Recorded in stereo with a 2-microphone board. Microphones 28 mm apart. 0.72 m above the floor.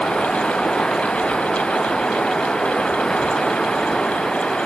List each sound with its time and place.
0.0 s running water: 30° left (ahead or behind)